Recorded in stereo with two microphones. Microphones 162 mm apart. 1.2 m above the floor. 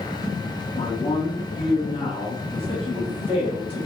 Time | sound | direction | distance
0.7 | a man speaking | 35° left (ahead or behind) | 1.4 m